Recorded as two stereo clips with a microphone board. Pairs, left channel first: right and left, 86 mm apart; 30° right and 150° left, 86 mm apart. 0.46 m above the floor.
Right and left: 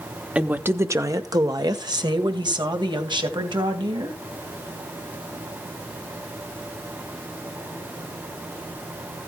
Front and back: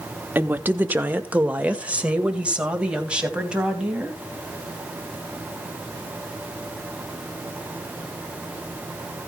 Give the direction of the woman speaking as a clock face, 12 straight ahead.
7 o'clock.